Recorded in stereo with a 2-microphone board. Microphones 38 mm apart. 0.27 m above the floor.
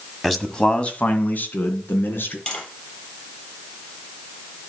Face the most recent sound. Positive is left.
turn(degrees=30)  # may be behind; listen again after turning